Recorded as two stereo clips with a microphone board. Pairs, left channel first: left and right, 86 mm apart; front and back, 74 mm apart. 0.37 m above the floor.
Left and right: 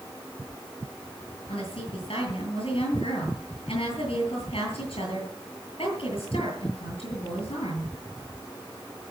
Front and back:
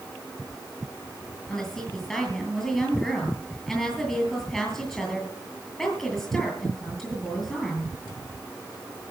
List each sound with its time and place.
1.5 s a woman speaking: 85° left, 8.5 m